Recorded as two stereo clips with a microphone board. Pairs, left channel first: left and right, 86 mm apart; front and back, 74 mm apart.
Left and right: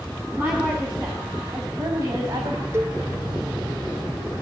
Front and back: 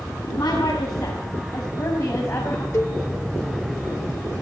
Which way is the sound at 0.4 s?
25° right.